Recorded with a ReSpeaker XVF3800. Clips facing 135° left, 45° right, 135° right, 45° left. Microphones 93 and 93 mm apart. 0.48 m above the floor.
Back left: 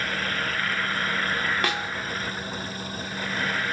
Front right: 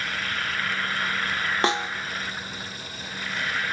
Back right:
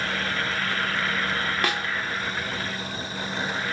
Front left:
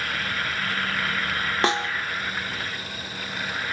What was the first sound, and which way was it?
A snare drum, straight ahead.